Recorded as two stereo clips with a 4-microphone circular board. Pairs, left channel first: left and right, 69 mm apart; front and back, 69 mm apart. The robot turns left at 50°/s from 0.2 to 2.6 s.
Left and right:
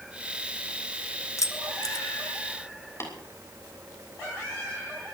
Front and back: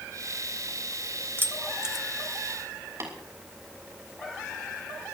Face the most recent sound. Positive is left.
turn(degrees=135)